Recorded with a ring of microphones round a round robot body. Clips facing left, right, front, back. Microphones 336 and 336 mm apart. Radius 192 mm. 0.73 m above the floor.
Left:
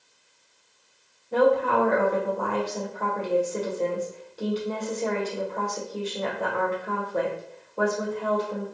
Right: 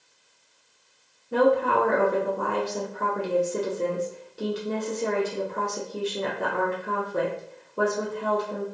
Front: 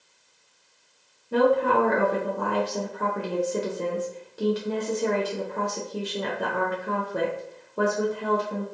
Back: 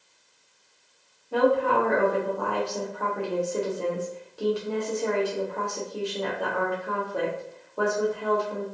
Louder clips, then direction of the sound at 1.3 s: Even, front 1 dB; 35° right.